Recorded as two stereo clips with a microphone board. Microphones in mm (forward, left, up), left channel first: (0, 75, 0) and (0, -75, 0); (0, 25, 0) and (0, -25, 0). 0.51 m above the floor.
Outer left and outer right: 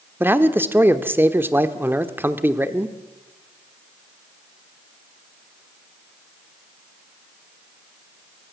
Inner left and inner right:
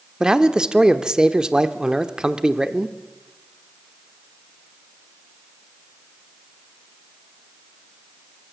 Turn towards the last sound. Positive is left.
turn(degrees=-15)  # may be behind; listen again after turning